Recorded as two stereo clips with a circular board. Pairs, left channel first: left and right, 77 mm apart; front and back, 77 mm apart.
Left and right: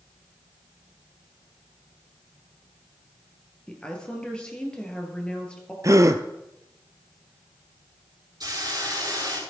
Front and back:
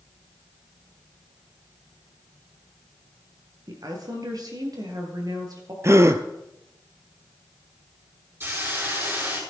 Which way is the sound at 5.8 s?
130° right.